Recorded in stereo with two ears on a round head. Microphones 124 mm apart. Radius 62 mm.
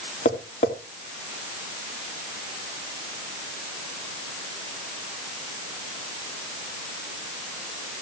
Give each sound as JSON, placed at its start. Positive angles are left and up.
{"t": 0.2, "sound": "tapping", "side_deg": 50, "distance_m": 2.5}